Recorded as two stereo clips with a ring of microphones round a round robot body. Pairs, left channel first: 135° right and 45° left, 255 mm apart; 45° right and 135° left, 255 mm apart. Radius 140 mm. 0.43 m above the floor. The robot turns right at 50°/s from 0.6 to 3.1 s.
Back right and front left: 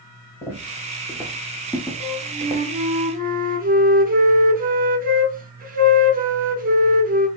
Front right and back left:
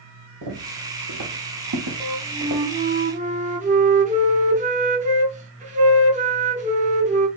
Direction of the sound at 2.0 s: 30° left.